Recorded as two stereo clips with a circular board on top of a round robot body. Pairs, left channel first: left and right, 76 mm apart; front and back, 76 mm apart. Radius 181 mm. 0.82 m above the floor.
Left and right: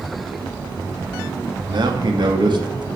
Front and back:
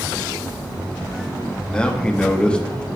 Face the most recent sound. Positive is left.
turn(degrees=-75)